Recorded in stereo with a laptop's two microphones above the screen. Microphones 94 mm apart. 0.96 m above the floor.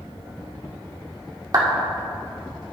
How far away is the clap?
About 1.9 m.